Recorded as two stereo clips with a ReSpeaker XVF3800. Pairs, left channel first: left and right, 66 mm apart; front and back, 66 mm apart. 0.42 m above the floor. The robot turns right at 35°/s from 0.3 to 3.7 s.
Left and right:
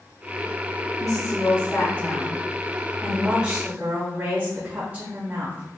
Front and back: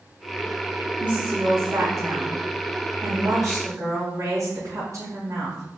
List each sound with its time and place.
1.0 s a woman speaking: 105° left, 2.5 m; by 5.8 s 160° right, 2.5 m